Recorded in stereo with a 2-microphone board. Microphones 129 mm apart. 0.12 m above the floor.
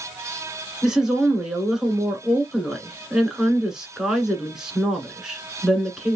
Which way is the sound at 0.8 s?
5° right (ahead or behind).